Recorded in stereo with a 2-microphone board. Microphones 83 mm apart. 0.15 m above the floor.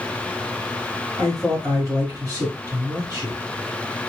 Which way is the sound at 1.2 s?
35° right (ahead or behind).